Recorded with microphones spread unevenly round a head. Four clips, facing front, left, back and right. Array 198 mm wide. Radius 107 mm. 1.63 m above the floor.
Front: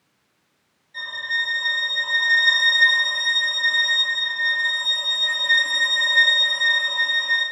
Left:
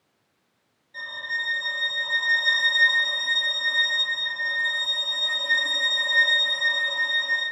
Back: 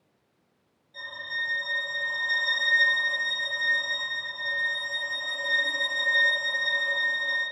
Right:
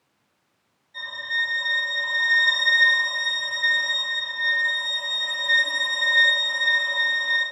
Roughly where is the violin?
Behind left.